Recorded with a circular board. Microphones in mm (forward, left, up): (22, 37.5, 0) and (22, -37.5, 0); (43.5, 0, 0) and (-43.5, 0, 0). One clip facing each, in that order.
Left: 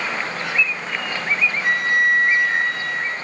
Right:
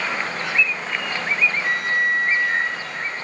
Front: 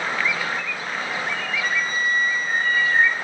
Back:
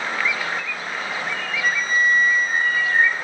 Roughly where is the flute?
Left.